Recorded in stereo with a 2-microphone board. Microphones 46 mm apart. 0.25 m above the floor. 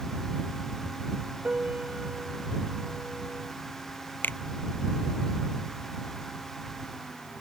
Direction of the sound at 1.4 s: 25° right (ahead or behind).